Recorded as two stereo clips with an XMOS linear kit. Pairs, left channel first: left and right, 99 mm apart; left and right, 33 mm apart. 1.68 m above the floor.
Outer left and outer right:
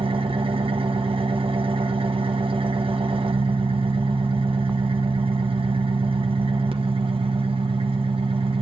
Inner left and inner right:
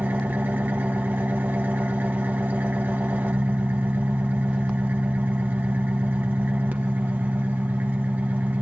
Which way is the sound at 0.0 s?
65° right (ahead or behind).